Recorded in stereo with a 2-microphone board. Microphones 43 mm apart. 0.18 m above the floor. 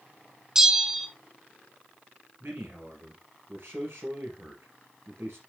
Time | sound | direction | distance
0.6 | a bell | 10° right (ahead or behind) | 1.2 m
2.4 | a man speaking | 60° right (ahead or behind) | 2.5 m